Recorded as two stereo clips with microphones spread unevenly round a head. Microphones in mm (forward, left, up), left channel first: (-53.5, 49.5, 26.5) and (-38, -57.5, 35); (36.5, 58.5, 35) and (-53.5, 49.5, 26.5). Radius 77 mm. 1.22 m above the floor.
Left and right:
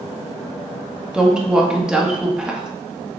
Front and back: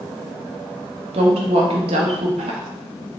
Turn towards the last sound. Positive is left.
turn(degrees=-165)